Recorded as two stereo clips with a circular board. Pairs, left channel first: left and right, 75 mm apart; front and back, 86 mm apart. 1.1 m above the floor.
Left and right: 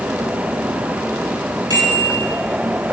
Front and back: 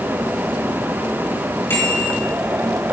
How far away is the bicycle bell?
About 6 m.